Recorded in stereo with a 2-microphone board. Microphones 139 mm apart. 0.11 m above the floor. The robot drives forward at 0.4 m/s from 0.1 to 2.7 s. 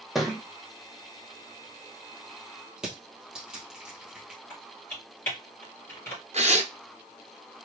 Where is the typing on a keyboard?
15° left (ahead or behind), 3 m.